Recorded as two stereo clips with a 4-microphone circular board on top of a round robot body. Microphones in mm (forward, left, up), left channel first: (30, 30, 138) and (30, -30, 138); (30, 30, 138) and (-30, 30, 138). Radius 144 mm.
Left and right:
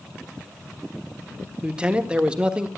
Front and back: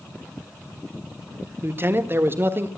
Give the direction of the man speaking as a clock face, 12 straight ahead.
5 o'clock.